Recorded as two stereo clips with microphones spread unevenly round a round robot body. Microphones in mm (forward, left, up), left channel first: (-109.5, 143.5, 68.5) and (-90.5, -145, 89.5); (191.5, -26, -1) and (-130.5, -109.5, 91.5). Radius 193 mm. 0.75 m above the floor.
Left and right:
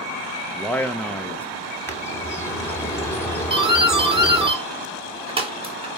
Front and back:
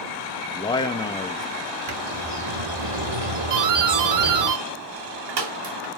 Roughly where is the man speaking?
Ahead left.